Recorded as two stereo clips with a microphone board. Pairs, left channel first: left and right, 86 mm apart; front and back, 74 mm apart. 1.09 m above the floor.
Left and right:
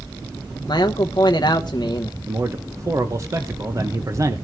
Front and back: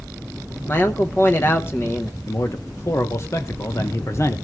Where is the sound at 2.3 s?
45° right, 1.1 m.